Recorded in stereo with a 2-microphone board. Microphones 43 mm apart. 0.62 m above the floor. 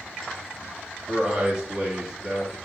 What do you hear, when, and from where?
1.1 s a man speaking: 20° right (ahead or behind), 1.0 m